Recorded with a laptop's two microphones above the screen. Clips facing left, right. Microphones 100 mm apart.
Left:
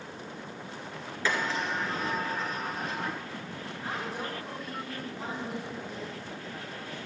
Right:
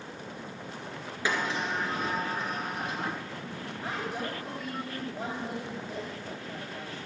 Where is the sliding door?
15° right (ahead or behind), 2.5 m.